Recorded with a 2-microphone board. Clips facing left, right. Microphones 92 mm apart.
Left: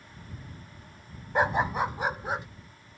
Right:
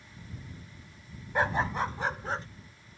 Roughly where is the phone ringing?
No phone ringing in this recording.